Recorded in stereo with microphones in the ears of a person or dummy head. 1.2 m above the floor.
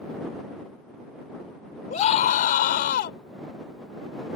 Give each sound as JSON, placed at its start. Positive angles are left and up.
{"t": 1.9, "sound": "a scream", "side_deg": 50}